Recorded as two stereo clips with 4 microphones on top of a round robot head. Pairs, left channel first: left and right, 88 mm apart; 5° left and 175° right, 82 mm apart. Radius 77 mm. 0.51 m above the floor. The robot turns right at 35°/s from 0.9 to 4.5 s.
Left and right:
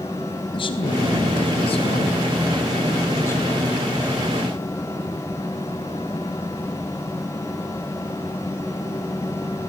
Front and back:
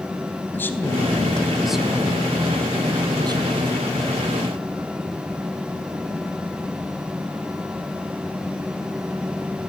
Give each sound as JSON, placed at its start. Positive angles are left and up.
{"t": 0.5, "sound": "a man speaking", "azimuth_deg": 70, "distance_m": 3.5}